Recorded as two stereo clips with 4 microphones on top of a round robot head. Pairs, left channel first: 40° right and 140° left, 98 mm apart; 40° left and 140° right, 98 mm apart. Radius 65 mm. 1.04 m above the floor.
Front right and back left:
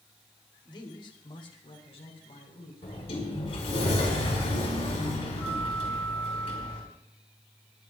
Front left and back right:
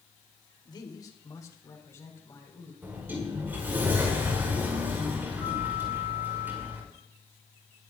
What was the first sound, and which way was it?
A man speaking, straight ahead.